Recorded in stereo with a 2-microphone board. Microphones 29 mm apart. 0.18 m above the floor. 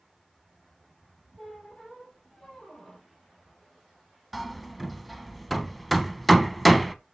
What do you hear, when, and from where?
1.4 s a squeak: 25° left (ahead or behind), 3 m
4.3 s hammering: 5° left (ahead or behind), 0.6 m